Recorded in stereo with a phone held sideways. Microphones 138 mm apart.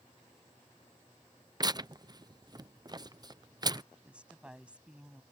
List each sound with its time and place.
1.6 s tearing paper: 30° right (ahead or behind)
4.0 s a woman speaking: 10° right (ahead or behind)